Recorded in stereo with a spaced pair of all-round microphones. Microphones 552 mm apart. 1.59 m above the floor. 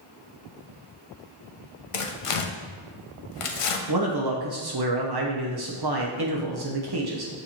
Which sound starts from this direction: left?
Tearing paper, at 1.9 s.